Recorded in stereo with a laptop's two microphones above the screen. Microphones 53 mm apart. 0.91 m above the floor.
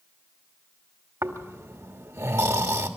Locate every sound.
1.2 s snoring: 75° right (ahead or behind), 1.4 m